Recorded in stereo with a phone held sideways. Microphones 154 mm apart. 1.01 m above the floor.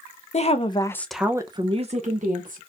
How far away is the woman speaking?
About 0.7 m.